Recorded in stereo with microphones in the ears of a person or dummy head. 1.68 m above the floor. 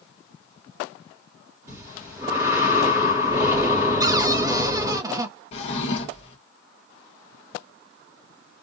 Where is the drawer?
40° left (ahead or behind), 1.2 m.